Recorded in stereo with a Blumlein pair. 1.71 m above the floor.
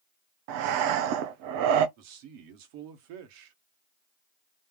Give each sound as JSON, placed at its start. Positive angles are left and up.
{"t": 0.5, "sound": "breathing", "azimuth_deg": -45, "distance_m": 0.9}
{"t": 2.0, "sound": "a man speaking", "azimuth_deg": -45, "distance_m": 1.5}